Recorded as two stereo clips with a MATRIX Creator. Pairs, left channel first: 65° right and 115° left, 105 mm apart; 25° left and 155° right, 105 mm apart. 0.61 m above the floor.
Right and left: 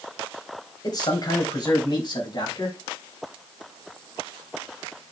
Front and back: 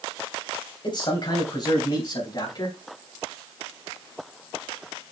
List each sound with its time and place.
0.8 s a man speaking: 20° right, 3.5 m; by 2.7 s 25° right, 5 m